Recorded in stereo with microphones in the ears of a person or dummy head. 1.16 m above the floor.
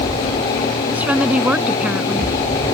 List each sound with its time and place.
0.9 s a woman speaking: centre (ahead or behind)